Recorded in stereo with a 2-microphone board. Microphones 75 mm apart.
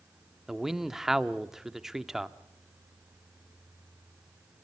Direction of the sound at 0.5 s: 5° right (ahead or behind).